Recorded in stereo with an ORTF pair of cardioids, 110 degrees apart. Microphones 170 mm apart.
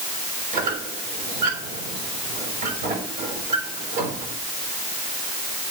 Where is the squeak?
55° right, 6 m.